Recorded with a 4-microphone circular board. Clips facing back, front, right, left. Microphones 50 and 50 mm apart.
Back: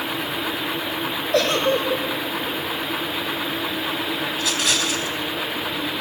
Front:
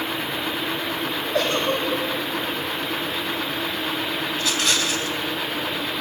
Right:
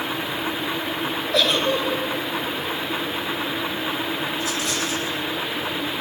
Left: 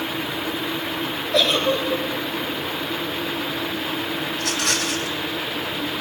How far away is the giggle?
About 4 m.